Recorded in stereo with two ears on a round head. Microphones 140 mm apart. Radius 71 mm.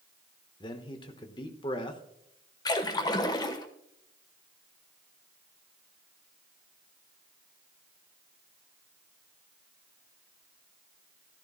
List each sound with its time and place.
0.6 s a man speaking: 30° left (ahead or behind), 1.0 m
2.6 s a splash: 25° left (ahead or behind), 1.1 m